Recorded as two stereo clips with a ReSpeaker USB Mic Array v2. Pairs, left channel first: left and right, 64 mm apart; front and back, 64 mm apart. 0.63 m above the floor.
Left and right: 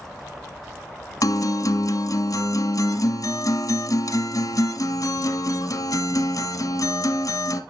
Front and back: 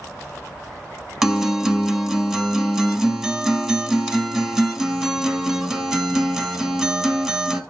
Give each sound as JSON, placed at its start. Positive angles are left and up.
{"t": 1.2, "sound": "a guitar", "azimuth_deg": 95, "distance_m": 0.9}